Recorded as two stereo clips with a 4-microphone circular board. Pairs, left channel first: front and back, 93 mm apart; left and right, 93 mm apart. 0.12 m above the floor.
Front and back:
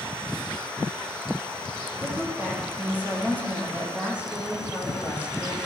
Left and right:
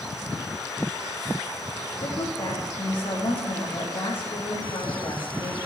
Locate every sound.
2.0 s a woman speaking: 110° left, 5.5 m